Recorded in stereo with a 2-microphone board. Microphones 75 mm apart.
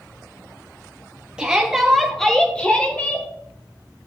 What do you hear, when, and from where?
1.4 s a shout: 10° right (ahead or behind), 3.5 m; by 3.3 s 25° left (ahead or behind), 4 m